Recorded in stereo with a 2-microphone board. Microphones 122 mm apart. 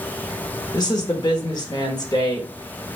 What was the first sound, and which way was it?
A woman speaking, 35° left (ahead or behind).